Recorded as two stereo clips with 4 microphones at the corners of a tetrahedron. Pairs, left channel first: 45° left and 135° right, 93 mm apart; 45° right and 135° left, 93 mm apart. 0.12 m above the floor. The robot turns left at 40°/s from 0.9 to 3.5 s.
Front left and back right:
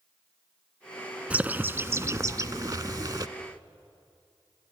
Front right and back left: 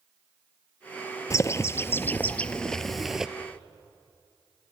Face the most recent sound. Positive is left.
turn(degrees=-155)